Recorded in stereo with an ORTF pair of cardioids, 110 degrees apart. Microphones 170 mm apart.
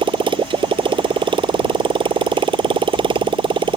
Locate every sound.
0.0 s a motorcycle: 30° right